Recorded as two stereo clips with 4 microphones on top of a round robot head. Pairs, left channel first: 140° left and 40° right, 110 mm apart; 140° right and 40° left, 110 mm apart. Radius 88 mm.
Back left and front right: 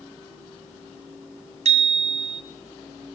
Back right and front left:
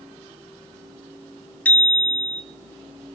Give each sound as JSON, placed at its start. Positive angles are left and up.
{"t": 1.6, "sound": "a bicycle bell", "azimuth_deg": -65, "distance_m": 3.0}